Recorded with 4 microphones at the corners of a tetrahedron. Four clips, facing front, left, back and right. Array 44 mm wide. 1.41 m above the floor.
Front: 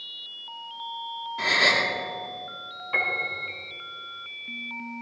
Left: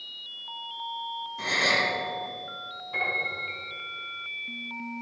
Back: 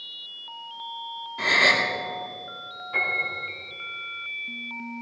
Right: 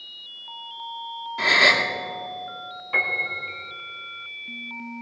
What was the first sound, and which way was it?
A gasp, 90° right.